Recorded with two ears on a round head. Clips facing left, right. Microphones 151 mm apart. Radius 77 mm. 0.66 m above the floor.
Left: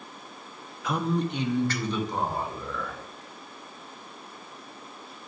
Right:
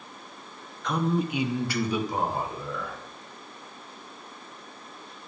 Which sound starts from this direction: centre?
A man speaking, at 0.8 s.